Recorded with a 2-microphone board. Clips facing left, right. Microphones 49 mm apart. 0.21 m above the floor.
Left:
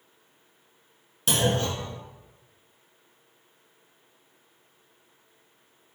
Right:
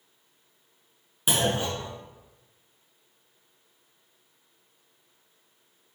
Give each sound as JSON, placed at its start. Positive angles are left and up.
{"t": 1.3, "sound": "a clunk", "side_deg": -15, "distance_m": 0.9}